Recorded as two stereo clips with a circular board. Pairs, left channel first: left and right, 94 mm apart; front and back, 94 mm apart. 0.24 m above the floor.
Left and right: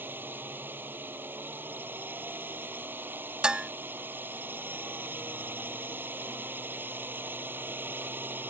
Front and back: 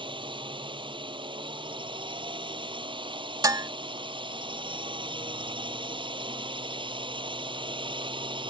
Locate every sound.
0.0 s a drone: 155° right
3.4 s dishes clattering: 165° right